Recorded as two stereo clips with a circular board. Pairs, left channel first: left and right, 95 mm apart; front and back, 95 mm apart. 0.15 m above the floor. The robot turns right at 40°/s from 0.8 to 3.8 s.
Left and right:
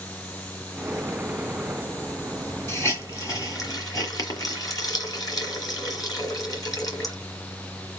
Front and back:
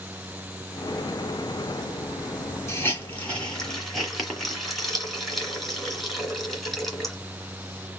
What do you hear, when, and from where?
2.7 s a hiss: 45° left, 2 m; by 7.2 s 90° left, 2 m